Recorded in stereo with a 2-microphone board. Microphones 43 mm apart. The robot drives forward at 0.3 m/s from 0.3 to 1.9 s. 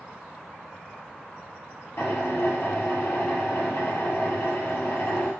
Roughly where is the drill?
Left.